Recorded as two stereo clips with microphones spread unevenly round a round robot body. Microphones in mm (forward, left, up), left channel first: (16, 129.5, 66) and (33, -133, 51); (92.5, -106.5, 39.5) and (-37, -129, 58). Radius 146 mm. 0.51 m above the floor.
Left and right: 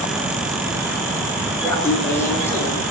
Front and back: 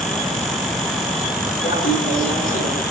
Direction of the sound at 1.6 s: 15° left.